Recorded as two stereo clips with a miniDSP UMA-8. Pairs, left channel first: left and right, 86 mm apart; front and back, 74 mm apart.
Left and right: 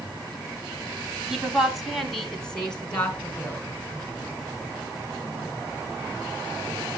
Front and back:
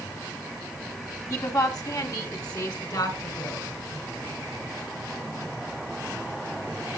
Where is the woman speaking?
10° right, 1.7 m; by 3.7 s 15° left, 3 m.